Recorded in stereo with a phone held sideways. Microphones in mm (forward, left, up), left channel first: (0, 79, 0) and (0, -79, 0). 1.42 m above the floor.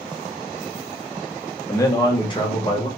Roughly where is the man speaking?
Centre.